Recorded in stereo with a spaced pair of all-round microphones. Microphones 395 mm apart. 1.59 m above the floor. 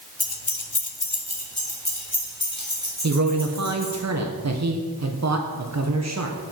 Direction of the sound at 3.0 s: 45° right (ahead or behind).